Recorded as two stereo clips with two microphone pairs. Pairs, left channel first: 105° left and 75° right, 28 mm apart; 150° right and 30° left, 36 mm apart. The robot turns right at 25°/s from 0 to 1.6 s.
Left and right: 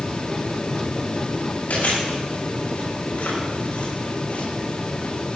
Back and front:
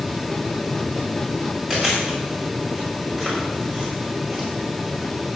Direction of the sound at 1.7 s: 95° left.